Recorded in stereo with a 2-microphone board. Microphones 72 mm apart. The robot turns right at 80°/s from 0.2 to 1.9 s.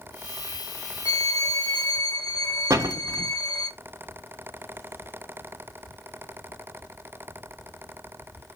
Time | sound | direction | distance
1.1 | a violin | 110° left | 1.8 m
2.7 | a door slam | 45° right (ahead or behind) | 0.7 m